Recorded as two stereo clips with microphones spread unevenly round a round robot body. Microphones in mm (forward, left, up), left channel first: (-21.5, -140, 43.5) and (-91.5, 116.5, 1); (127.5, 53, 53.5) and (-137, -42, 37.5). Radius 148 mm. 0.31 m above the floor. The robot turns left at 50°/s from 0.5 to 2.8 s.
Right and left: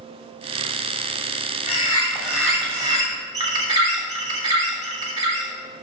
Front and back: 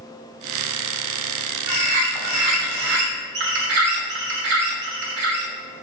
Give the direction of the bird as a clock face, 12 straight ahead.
4 o'clock.